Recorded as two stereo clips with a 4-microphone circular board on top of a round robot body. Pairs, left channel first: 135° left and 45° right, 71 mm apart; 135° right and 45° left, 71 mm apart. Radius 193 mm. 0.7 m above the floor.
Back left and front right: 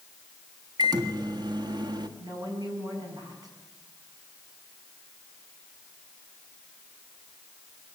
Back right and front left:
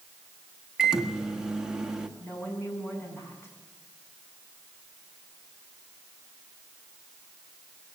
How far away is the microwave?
About 1.8 m.